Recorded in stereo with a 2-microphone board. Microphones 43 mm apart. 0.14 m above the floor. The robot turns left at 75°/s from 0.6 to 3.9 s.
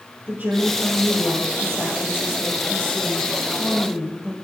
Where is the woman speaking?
140° right, 6 m; by 4.3 s 25° right, 6 m.